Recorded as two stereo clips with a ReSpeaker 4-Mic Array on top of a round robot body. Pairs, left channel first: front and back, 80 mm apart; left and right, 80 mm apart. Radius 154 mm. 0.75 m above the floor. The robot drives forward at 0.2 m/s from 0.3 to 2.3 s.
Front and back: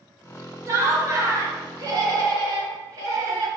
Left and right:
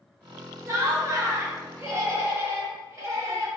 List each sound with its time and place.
0.7 s laughter: 135° right, 1.4 m; by 3.5 s 145° right, 1.6 m